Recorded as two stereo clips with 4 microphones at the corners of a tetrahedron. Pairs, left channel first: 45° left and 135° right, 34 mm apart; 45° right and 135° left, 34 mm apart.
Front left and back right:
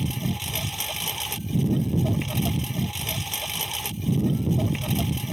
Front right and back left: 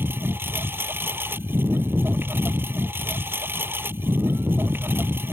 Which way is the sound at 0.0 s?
140° left.